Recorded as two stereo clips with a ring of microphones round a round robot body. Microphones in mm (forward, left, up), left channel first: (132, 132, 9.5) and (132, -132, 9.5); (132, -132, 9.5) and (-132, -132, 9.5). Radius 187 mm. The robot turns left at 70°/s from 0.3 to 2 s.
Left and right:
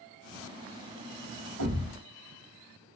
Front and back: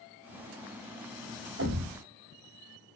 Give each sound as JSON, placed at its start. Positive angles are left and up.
{"t": 1.6, "sound": "a thud", "azimuth_deg": -135, "distance_m": 1.5}